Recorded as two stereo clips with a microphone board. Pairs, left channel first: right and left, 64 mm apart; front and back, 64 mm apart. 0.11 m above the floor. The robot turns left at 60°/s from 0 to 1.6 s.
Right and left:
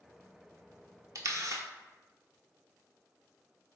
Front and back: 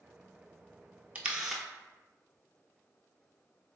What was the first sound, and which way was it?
A camera shutter, 115° left.